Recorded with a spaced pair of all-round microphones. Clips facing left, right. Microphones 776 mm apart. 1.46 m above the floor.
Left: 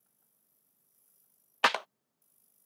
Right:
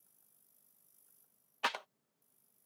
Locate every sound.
1.6 s a clap: 85° left